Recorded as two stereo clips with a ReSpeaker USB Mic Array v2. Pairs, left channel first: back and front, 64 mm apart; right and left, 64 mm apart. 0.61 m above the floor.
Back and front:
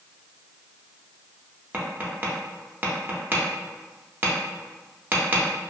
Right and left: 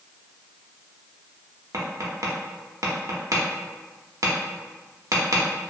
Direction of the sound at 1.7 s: 60° left.